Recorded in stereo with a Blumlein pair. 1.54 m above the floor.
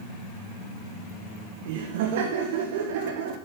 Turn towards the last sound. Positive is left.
turn(degrees=-50)